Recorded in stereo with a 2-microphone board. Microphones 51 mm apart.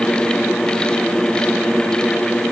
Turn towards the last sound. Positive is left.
No sound to turn to.